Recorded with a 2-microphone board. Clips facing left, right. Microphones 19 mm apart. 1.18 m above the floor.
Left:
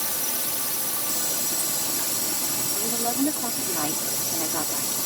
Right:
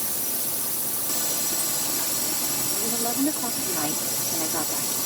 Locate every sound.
0.0 s a drone: 35° left (ahead or behind)
2.8 s a woman speaking: 30° left (ahead or behind)